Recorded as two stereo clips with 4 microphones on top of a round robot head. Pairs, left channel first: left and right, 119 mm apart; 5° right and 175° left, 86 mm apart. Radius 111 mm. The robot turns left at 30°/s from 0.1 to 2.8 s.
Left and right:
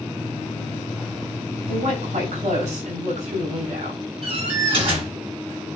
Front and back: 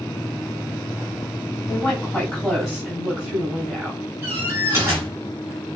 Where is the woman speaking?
75° right, 5 m; by 4.0 s 105° right, 5 m.